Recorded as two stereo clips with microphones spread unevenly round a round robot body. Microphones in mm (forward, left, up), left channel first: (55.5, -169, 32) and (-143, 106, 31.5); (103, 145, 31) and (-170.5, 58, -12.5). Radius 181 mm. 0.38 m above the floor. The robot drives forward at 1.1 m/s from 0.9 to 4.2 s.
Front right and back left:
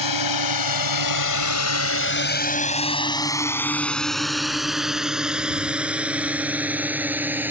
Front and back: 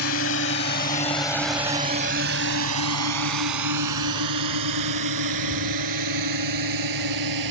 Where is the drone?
35° right; by 7.5 s 150° right.